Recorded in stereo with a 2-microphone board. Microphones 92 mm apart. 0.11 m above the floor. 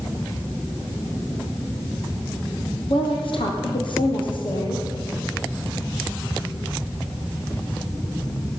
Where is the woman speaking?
70° left (ahead or behind), 3.5 m; by 4.8 s 60° left (ahead or behind), 4.5 m.